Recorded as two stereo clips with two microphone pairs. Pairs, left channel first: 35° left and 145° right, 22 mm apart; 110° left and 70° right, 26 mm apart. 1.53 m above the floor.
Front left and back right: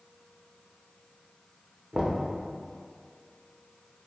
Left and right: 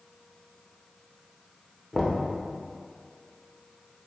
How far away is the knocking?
About 0.5 m.